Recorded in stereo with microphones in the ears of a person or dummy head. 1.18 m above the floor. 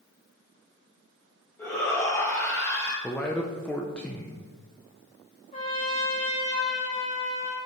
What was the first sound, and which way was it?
A shout, 15° left (ahead or behind).